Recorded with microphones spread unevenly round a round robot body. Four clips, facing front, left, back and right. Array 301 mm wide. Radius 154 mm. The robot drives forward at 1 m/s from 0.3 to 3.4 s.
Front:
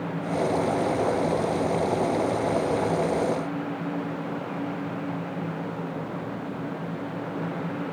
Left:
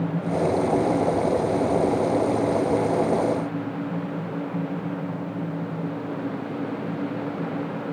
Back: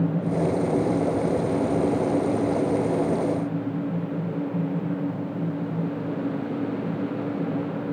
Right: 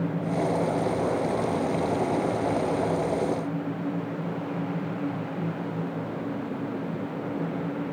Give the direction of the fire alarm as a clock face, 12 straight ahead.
No fire alarm in this recording.